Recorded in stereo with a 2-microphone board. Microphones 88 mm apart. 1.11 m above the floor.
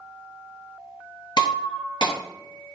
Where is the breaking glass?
60° left (ahead or behind), 1.9 m.